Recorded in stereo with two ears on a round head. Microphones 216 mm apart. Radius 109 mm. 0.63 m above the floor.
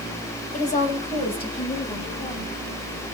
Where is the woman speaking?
35° left (ahead or behind), 3 m; by 2.5 s 15° left (ahead or behind), 4.5 m.